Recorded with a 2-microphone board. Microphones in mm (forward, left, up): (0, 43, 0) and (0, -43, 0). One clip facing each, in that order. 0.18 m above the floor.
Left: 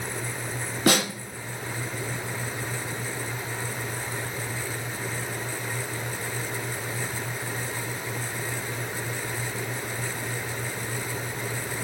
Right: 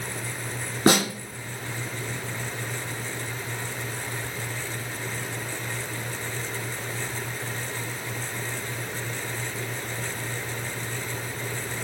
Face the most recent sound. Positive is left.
turn(degrees=-35)  # may be behind; listen again after turning